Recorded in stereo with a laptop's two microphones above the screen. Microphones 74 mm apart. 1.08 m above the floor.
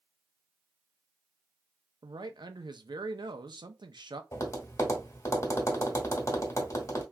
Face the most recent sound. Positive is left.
turn(degrees=45)  # may be behind; listen again after turning